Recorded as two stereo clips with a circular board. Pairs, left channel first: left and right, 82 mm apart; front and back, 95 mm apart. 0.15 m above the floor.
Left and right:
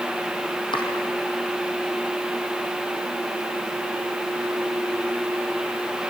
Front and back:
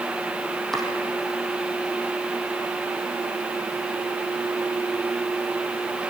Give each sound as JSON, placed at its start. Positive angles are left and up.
{"t": 0.7, "sound": "chopping", "azimuth_deg": 85, "distance_m": 4.0}